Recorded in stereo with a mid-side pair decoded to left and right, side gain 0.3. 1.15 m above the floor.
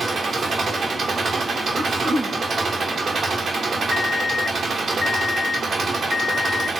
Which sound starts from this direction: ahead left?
An alarm clock, at 3.9 s.